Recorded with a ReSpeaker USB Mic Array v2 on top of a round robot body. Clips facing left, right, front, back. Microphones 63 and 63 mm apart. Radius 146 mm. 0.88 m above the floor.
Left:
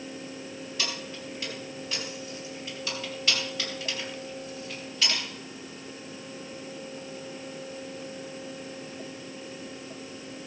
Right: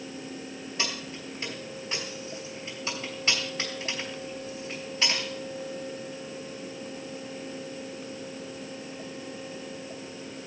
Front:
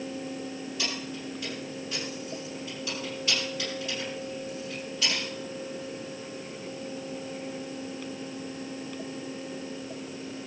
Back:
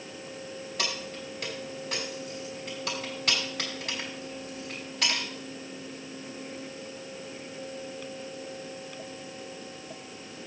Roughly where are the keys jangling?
Behind right.